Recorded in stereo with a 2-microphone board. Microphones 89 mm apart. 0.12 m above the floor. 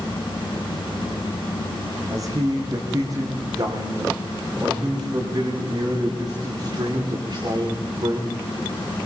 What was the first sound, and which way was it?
A man speaking, 40° right (ahead or behind).